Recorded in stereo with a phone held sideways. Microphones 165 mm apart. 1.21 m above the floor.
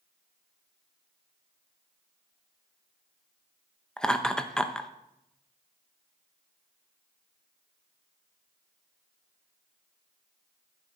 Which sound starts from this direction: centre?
Laughter, at 4.0 s.